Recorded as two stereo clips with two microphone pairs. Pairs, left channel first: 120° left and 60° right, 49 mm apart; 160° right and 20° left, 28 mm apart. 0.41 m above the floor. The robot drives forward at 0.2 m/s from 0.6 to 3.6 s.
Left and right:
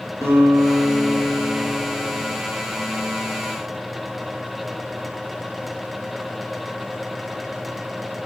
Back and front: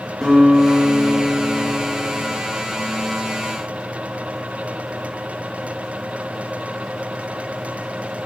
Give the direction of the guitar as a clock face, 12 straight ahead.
9 o'clock.